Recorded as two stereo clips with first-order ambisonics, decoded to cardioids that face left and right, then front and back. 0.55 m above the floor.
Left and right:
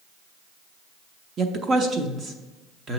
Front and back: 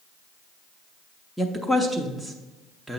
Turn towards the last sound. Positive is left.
turn(degrees=-85)